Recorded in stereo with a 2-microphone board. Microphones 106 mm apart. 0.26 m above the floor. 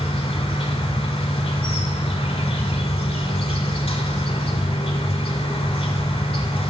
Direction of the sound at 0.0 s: 65° left (ahead or behind).